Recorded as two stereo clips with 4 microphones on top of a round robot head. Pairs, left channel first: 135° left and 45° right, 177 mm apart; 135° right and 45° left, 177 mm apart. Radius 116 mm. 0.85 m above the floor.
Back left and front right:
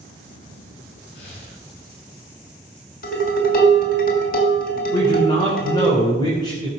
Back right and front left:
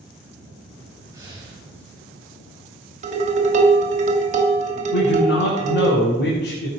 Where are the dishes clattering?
95° left, 3 m.